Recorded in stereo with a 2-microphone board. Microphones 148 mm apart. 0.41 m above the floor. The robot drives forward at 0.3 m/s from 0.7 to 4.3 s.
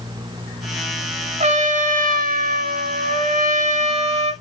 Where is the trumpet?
50° right (ahead or behind), 0.6 m; by 4.3 s 45° right (ahead or behind), 0.7 m.